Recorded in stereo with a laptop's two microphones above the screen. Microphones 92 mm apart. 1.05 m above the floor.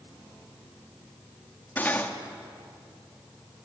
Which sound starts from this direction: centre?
Cutlery clinking, at 1.8 s.